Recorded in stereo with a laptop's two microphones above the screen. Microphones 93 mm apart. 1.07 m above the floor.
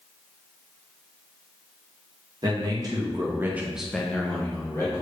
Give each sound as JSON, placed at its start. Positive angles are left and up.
{"t": 2.4, "sound": "a man speaking", "side_deg": -45, "distance_m": 0.9}